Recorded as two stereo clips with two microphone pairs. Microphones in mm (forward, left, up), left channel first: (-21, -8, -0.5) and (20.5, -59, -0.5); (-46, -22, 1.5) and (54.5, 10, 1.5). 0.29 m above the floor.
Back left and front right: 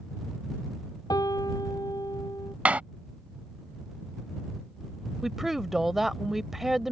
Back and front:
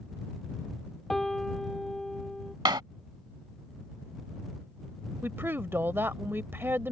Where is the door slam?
5° left.